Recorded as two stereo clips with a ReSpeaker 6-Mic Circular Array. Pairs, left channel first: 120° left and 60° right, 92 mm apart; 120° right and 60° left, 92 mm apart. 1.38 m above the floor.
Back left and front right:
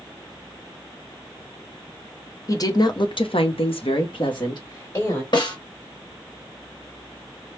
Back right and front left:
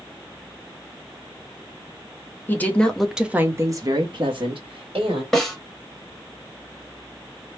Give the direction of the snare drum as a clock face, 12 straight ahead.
7 o'clock.